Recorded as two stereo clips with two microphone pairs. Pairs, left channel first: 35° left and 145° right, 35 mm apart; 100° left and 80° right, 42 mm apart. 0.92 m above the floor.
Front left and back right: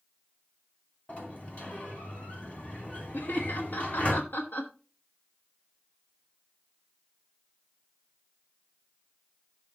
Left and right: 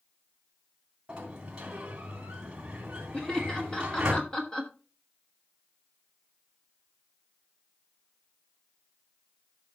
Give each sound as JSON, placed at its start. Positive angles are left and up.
{"t": 1.1, "sound": "a sliding door", "azimuth_deg": -10, "distance_m": 2.5}
{"t": 3.1, "sound": "laughter", "azimuth_deg": 35, "distance_m": 1.3}